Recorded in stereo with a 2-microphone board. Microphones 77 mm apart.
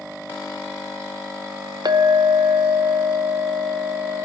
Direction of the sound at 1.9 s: 65° right (ahead or behind).